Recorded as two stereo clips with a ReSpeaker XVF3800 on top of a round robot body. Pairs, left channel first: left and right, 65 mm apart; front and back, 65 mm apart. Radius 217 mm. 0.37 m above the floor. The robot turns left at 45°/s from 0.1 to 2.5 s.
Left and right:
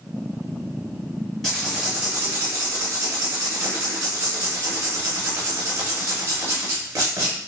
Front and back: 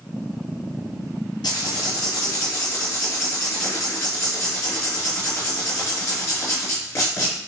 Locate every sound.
1.4 s writing: 5° left, 0.6 m; by 7.4 s 45° right, 0.6 m